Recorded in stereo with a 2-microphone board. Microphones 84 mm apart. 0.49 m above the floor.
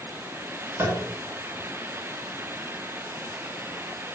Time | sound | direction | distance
0.8 | tapping | 35° right (ahead or behind) | 0.7 m